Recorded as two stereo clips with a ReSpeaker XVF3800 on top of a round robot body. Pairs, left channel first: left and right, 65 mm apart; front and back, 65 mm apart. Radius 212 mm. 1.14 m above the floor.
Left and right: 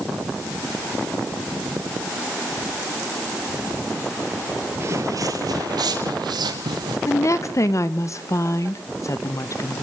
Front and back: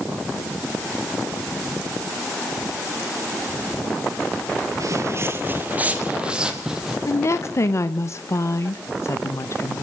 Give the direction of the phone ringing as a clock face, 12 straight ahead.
No phone ringing in this recording.